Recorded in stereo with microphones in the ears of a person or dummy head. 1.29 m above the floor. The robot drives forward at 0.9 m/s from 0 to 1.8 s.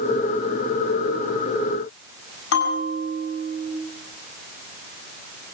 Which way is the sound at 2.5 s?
80° left.